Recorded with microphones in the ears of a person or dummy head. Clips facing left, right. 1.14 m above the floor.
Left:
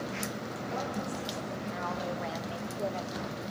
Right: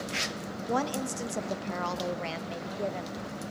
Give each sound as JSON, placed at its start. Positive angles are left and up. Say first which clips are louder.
{"t": 0.7, "sound": "a woman speaking", "louder": "right 6 dB", "side_deg": -85, "distance_m": 1.0}